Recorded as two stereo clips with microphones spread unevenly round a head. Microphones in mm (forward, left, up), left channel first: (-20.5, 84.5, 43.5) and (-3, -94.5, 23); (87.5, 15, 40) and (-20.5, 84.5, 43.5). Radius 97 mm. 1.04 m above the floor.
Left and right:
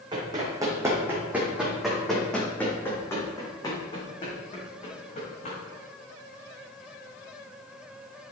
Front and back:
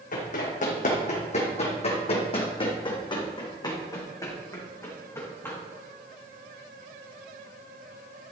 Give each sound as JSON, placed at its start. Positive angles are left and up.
{"t": 0.1, "sound": "running footsteps", "azimuth_deg": -15, "distance_m": 2.5}